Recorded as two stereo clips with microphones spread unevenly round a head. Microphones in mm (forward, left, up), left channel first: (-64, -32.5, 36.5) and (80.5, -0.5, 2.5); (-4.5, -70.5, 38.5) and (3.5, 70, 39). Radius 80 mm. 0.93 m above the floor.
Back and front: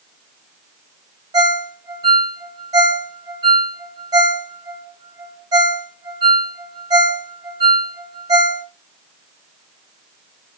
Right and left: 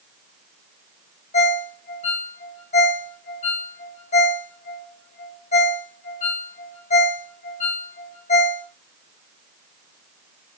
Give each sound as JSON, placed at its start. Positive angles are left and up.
{"t": 1.3, "sound": "a ringtone", "azimuth_deg": -50, "distance_m": 2.0}